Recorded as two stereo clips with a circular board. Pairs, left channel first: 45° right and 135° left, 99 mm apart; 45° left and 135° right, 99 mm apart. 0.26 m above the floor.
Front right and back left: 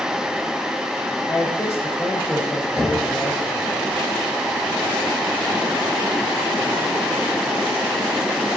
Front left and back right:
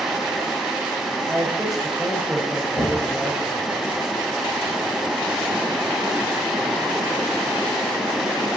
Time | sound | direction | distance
1.3 | a man speaking | 45° right | 0.9 m
2.8 | knocking | 10° left | 3.5 m